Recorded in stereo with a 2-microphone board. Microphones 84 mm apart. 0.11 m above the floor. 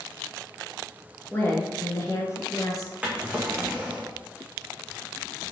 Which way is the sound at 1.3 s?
20° left (ahead or behind).